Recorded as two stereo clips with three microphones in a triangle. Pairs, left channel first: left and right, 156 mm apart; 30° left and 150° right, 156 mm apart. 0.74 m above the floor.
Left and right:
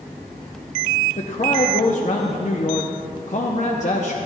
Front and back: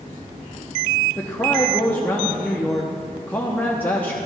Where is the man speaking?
105° left, 0.7 m.